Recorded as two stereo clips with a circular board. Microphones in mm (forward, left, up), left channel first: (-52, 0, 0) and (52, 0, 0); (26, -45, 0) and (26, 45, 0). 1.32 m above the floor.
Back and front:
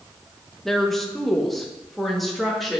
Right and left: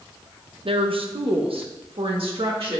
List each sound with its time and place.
0.7 s a woman speaking: 95° left, 0.7 m; by 2.8 s 90° left, 1.9 m